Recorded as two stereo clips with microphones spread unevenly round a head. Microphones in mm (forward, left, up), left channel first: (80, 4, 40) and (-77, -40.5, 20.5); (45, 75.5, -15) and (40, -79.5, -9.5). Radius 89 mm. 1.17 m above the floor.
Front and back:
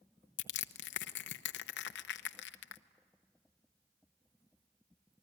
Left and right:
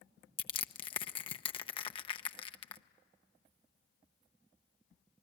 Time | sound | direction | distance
0.4 | crushing | 35° left | 0.9 m